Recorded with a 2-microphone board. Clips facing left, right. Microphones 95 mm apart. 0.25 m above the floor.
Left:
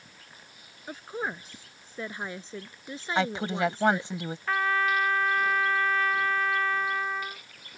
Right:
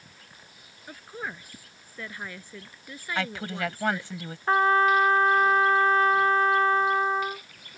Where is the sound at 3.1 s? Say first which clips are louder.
Left 4 dB; 20° left (ahead or behind).